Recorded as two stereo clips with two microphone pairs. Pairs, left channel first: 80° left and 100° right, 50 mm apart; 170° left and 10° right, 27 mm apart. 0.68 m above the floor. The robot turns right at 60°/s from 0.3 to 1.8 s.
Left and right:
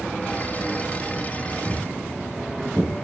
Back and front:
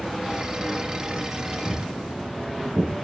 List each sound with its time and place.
1.6 s footsteps: 25° right, 7.5 m; by 3.0 s 10° right, 7 m